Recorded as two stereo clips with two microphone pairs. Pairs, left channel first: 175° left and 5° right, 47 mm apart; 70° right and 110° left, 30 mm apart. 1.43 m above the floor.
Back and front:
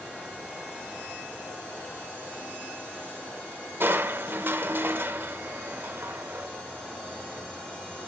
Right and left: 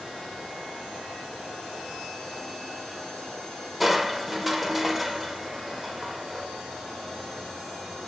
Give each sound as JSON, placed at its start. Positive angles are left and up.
{"t": 3.8, "sound": "crushing", "azimuth_deg": 25, "distance_m": 0.7}